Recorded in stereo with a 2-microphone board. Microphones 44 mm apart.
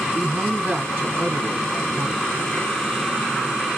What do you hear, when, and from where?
0.1 s a man speaking: 55° right (ahead or behind), 1.8 m